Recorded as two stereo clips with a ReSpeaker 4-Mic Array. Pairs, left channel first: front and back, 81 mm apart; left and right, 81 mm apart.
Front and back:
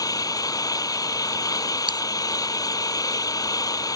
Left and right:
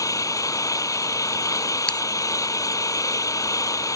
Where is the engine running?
45° left.